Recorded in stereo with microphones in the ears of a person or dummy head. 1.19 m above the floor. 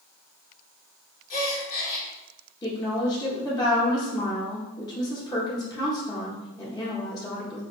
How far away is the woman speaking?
About 0.9 m.